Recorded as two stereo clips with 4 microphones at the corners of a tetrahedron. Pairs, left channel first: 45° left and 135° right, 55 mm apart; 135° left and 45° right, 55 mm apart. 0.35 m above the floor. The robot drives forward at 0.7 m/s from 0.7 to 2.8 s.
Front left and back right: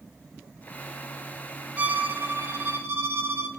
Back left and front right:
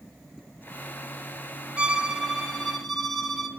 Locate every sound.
1.8 s a violin: 95° right, 1.3 m; by 3.5 s 135° right, 1.5 m